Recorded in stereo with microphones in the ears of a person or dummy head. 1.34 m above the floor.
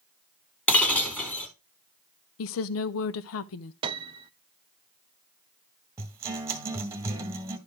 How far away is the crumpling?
No crumpling in this recording.